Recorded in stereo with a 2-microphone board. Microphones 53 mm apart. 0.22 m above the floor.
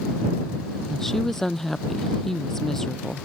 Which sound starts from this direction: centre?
A woman speaking, at 0.9 s.